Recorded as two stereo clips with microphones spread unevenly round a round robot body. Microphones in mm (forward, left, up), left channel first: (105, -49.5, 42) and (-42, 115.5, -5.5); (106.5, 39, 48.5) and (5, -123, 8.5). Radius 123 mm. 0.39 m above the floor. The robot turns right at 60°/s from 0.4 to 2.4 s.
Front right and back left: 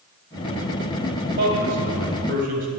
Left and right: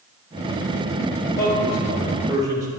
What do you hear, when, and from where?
1.3 s a man speaking: 105° left, 2.5 m; by 2.7 s 170° left, 2.5 m